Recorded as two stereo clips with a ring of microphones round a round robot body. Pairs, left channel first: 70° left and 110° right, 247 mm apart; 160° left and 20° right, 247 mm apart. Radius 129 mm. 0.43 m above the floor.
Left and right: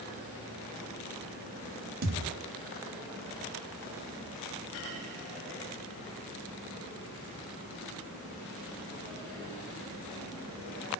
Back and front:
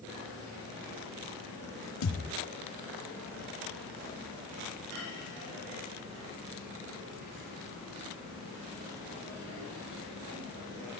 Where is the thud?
165° right, 0.9 m.